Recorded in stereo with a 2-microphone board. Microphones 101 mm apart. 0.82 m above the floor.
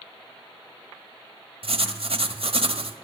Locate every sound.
1.6 s writing: 70° right (ahead or behind), 1.3 m